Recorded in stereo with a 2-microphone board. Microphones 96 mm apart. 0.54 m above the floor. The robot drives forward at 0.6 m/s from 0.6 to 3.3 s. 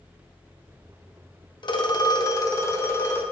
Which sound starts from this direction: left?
A phone ringing, at 1.6 s.